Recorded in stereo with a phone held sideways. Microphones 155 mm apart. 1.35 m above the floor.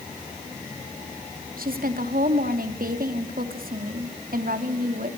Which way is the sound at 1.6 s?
70° right (ahead or behind).